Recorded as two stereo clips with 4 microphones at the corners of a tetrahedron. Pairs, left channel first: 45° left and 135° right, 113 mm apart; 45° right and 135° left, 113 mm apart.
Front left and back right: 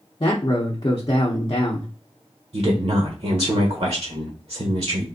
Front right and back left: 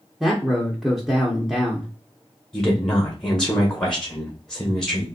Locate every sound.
0.2 s a man speaking: 55° left, 0.7 m
2.5 s a woman speaking: 130° right, 0.9 m